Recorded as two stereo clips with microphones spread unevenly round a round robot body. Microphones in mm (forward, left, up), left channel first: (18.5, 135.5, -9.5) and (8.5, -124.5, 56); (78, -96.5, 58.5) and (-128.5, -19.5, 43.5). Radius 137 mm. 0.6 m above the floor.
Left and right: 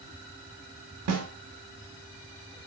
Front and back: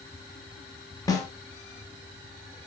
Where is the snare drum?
95° right, 0.9 m.